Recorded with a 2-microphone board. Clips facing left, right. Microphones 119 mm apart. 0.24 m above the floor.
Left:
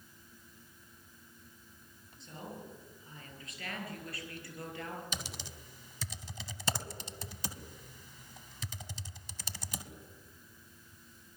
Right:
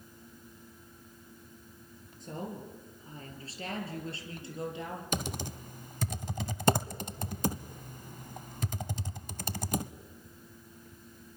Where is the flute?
I don't hear a flute.